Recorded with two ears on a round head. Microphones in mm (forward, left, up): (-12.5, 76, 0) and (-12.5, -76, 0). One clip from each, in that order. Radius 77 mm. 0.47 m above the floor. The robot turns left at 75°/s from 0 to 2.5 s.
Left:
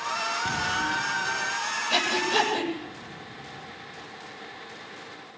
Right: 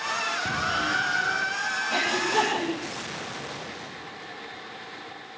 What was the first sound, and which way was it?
An explosion, 25° left.